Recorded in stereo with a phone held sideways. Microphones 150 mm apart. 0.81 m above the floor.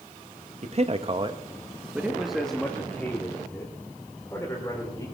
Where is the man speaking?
45° right (ahead or behind), 1.1 m; by 5.0 s 20° left (ahead or behind), 3.5 m.